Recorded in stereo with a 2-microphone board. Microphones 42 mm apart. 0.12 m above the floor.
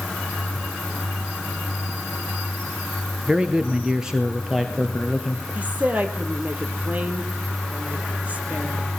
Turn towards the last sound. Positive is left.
turn(degrees=-35)  # may be behind; listen again after turning